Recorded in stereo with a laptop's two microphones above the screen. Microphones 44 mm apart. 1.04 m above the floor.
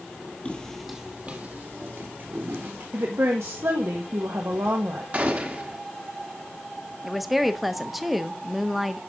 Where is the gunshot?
35° right (ahead or behind), 1.1 m.